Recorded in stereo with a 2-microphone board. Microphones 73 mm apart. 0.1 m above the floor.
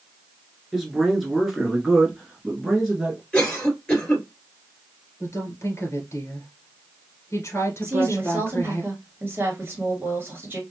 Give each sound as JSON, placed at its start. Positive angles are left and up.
{"t": 0.7, "sound": "a man speaking", "side_deg": -5, "distance_m": 1.4}
{"t": 3.3, "sound": "a cough", "side_deg": 15, "distance_m": 2.0}
{"t": 5.2, "sound": "a woman speaking", "side_deg": 40, "distance_m": 1.4}
{"t": 7.8, "sound": "a woman speaking", "side_deg": -30, "distance_m": 1.6}